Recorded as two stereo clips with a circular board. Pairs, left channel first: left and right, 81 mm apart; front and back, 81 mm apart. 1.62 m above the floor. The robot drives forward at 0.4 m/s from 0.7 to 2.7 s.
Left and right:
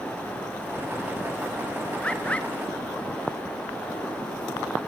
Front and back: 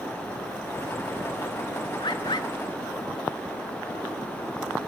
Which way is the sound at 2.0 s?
15° left.